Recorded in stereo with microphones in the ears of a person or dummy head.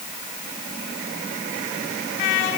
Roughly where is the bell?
I don't hear a bell.